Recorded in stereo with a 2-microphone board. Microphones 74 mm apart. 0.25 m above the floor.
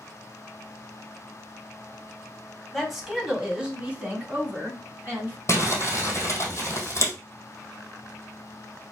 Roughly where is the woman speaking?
Centre.